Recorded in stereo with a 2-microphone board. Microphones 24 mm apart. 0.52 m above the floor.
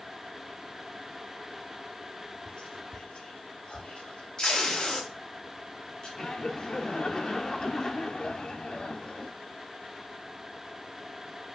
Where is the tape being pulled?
35° left (ahead or behind), 3 m.